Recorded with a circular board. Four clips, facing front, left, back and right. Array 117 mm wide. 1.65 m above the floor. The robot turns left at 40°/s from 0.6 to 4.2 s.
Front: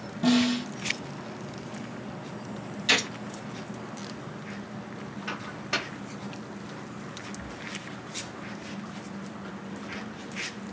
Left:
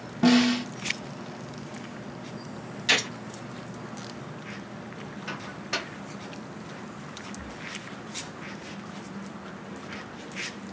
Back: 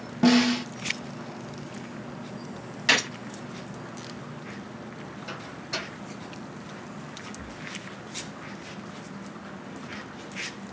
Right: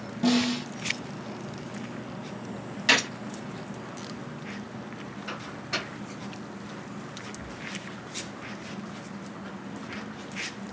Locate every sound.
0.2 s a snare drum: 145° left, 0.5 m
2.9 s a gunshot: 150° right, 0.8 m; by 3.1 s 160° right, 0.8 m
5.3 s a microwave: 20° left, 0.9 m
7.3 s breathing: 110° left, 1.1 m